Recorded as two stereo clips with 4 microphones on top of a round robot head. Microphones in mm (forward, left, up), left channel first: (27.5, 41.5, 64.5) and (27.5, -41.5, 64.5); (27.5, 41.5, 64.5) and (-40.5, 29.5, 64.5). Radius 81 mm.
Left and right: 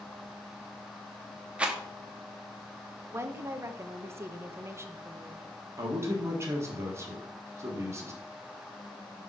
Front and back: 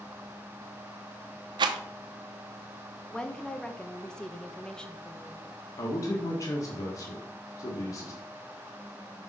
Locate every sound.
1.6 s a rattle: 170° right, 0.7 m
3.1 s a woman speaking: 60° right, 0.9 m
5.8 s a man speaking: 35° right, 1.5 m